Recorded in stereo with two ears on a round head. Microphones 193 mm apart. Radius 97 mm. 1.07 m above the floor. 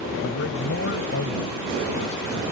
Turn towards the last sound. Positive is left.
turn(degrees=55)  # may be behind; listen again after turning